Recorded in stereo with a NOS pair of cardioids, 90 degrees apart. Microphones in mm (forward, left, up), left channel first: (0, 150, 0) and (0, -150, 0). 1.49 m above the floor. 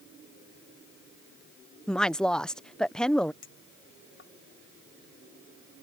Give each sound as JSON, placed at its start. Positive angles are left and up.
{"t": 1.9, "sound": "a woman speaking", "azimuth_deg": 0}
{"t": 3.4, "sound": "a clink", "azimuth_deg": 45}